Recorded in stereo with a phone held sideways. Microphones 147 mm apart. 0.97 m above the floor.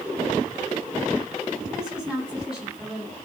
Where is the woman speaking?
5° right (ahead or behind), 10 m.